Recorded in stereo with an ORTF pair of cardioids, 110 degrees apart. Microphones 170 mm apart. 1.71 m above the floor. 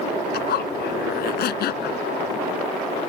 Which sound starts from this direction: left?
A zipper, at 0.3 s.